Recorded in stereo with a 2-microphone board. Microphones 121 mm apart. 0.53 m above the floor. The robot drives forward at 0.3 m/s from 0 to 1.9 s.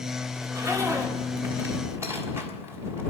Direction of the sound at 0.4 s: 25° right (ahead or behind).